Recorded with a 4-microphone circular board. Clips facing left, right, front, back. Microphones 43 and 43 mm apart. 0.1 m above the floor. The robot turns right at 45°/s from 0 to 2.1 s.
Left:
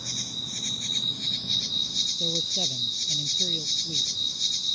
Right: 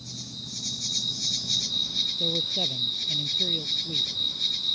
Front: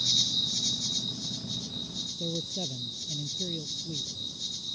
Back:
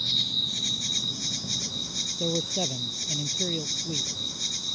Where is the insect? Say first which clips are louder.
Left 5 dB, back 1 dB; 100° left; by 4.8 s 165° right.